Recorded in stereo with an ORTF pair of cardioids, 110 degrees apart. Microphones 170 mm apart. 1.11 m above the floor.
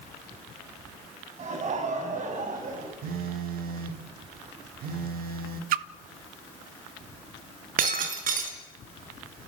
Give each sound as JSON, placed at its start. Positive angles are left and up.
{"t": 1.4, "sound": "laughter", "azimuth_deg": -45, "distance_m": 7.0}
{"t": 3.0, "sound": "a phone buzzing", "azimuth_deg": -65, "distance_m": 1.9}
{"t": 5.7, "sound": "a splash", "azimuth_deg": -65, "distance_m": 1.1}
{"t": 7.8, "sound": "breaking glass", "azimuth_deg": -60, "distance_m": 4.5}